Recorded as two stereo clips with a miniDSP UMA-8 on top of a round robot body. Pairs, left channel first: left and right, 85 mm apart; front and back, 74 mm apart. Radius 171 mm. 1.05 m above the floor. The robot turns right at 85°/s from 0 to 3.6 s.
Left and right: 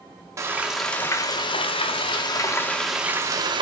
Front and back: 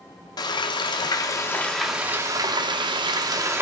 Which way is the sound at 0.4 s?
35° right.